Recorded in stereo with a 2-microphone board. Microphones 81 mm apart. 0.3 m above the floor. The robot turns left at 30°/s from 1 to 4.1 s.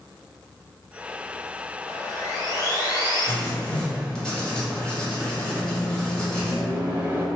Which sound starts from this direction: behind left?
Sawing, at 1.9 s.